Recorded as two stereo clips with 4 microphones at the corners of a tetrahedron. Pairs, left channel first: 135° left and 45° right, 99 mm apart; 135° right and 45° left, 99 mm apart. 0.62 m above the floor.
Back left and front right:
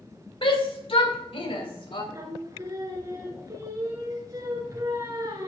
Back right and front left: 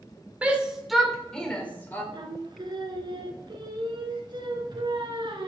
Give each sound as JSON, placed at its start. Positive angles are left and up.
{"t": 0.4, "sound": "a shout", "azimuth_deg": 120, "distance_m": 1.9}
{"t": 2.1, "sound": "singing", "azimuth_deg": 10, "distance_m": 1.4}